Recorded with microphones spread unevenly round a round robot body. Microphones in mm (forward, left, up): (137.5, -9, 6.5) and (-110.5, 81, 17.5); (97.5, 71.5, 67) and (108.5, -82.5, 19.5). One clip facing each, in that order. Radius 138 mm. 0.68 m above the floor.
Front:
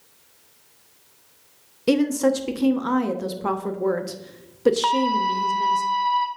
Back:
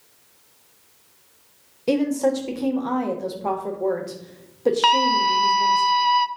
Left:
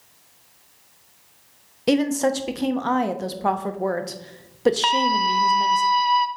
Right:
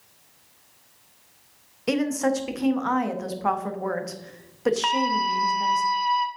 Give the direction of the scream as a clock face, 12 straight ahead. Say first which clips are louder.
Front 1 dB, left 3 dB; 7 o'clock.